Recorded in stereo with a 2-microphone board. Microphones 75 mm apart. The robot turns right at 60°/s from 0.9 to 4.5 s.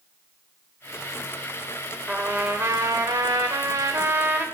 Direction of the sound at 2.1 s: 170° right.